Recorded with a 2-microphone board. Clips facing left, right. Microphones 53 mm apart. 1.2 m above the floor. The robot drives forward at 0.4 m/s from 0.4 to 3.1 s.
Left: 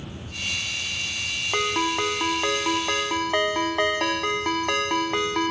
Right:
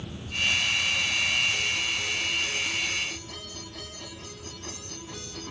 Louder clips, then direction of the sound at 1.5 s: Left 6 dB; 85° left.